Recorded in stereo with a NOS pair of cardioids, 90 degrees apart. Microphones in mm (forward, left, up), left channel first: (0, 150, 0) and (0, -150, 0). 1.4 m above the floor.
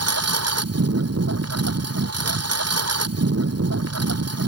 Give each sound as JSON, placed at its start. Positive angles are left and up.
{"t": 0.0, "sound": "a lawn mower", "azimuth_deg": -60}